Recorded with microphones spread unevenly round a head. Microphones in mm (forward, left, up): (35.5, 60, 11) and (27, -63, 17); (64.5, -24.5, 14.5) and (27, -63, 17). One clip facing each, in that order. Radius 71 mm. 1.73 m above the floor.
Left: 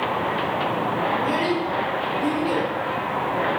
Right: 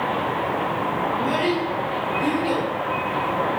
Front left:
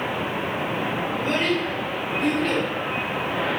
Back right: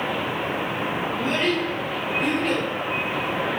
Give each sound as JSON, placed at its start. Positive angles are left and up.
{"t": 1.1, "sound": "a child speaking", "azimuth_deg": 5, "distance_m": 0.9}